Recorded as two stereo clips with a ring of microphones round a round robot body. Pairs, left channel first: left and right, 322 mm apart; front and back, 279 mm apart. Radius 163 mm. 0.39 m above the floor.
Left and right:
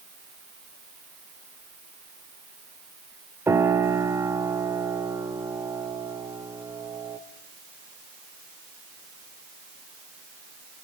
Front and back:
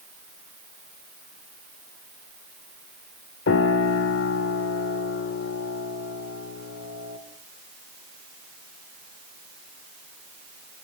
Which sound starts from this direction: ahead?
A piano, at 3.5 s.